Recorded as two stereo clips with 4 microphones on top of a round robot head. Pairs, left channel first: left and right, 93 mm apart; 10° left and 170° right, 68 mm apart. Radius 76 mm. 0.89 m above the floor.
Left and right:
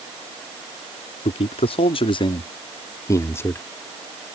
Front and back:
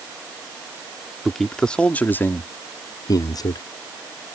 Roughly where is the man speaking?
Left.